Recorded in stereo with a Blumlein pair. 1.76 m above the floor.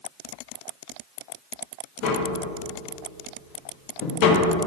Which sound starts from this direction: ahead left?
Tapping, at 2.0 s.